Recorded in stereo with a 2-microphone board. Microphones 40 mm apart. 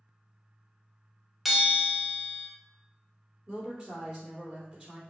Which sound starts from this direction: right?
A woman speaking, at 3.5 s.